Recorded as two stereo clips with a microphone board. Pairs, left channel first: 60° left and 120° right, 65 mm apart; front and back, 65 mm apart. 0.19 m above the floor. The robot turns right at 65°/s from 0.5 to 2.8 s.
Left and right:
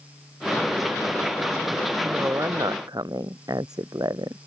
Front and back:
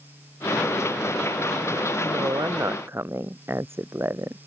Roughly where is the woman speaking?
Behind.